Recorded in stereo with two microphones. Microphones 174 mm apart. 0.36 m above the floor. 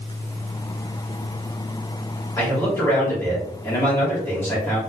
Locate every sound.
2.4 s a man speaking: 15° left (ahead or behind), 1.5 m